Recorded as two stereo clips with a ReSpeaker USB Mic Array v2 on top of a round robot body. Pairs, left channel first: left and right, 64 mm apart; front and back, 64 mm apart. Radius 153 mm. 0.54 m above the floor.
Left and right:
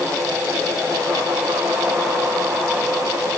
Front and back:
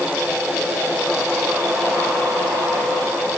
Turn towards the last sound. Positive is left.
No sound to turn to.